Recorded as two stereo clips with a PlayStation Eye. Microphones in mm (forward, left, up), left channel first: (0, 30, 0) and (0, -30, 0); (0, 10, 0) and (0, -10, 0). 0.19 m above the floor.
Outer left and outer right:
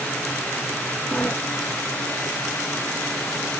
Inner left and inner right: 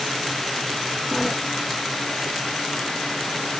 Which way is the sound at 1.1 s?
25° left (ahead or behind).